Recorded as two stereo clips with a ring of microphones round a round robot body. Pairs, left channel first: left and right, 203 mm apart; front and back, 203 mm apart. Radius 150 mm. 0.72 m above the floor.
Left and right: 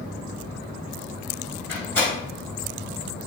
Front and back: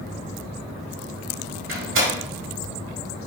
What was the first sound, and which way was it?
A door slam, 175° left.